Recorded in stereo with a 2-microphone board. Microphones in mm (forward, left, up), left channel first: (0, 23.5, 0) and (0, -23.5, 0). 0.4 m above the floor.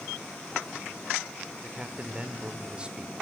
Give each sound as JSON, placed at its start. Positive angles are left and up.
{"t": 1.6, "sound": "a man speaking", "side_deg": -20, "distance_m": 1.5}